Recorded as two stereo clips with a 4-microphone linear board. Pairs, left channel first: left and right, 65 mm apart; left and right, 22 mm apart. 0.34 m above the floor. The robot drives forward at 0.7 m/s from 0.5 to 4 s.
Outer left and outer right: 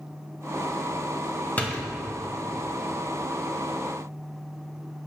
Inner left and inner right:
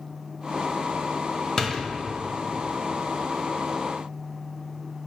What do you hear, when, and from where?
1.6 s a door slam: 25° left (ahead or behind), 1.5 m